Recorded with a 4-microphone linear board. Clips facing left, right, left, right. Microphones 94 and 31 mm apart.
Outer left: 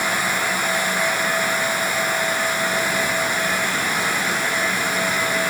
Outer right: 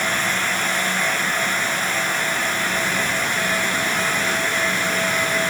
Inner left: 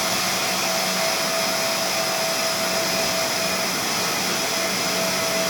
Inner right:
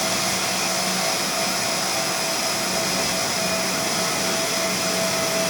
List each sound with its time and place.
Only background noise.